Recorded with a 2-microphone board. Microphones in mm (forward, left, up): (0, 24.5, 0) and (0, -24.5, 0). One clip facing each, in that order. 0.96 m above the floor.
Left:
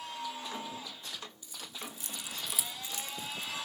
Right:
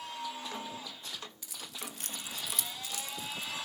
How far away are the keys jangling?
About 1.0 m.